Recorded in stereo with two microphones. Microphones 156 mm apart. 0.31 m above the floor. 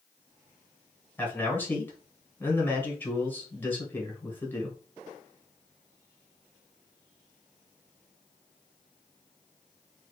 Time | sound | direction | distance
1.2 | a man speaking | 15° left (ahead or behind) | 1.4 m